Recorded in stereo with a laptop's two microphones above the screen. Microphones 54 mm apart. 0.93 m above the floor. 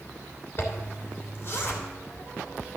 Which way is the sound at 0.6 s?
40° left (ahead or behind).